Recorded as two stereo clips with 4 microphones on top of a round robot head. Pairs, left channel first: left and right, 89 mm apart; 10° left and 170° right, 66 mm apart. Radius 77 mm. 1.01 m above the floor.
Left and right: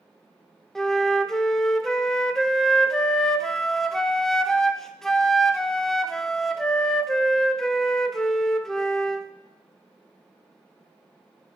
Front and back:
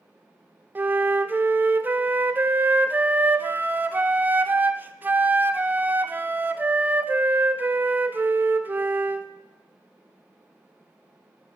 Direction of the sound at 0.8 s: 170° left.